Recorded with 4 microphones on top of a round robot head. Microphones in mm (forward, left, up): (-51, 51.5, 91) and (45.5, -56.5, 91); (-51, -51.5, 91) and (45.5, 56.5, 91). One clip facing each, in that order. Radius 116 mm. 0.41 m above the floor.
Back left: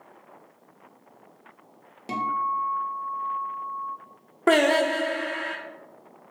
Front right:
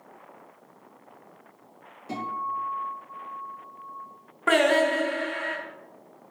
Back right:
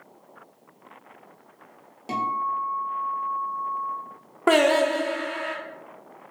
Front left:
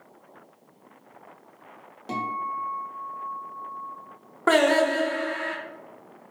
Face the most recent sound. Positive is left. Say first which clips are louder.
# back left 1 dB, back right 1 dB
turn(degrees=155)